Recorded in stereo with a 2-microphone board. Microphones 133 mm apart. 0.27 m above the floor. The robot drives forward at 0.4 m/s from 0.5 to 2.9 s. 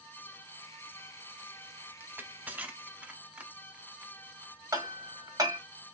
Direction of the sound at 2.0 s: 15° right (ahead or behind).